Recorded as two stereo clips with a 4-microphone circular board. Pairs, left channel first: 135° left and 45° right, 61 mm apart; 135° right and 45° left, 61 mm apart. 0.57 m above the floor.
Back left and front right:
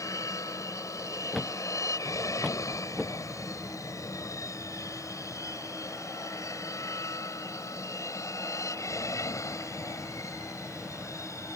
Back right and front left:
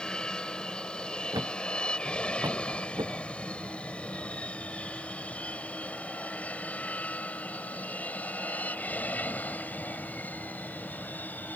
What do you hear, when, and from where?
0.0 s an aircraft: 150° left; by 11.6 s 165° left
1.3 s a thud: 50° left